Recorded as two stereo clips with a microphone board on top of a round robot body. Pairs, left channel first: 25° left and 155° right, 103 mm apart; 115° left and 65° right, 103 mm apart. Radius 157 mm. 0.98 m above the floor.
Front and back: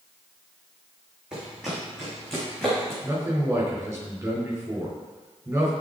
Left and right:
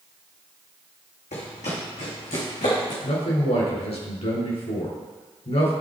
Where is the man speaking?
135° left, 4 m.